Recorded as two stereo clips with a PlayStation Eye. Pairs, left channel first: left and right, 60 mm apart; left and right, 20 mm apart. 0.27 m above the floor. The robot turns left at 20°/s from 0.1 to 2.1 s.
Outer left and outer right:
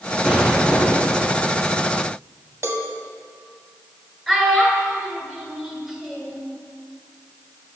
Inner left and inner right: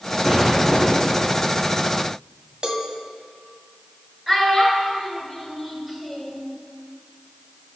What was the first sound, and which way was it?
An explosion, 15° right (ahead or behind).